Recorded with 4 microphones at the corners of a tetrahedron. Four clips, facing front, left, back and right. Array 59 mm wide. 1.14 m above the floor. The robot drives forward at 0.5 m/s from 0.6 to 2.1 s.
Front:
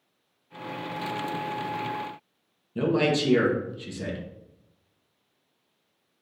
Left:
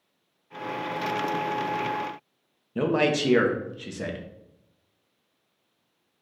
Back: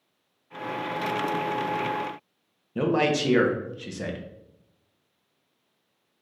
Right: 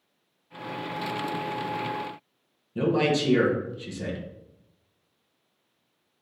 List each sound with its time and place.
2.8 s a man speaking: 125° left, 0.9 m